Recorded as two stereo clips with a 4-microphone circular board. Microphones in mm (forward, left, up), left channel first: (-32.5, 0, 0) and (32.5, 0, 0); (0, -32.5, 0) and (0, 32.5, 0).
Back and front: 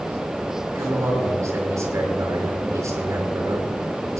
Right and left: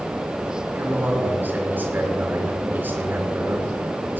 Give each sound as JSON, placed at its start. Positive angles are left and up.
{"t": 0.8, "sound": "a man speaking", "azimuth_deg": 30, "distance_m": 5.0}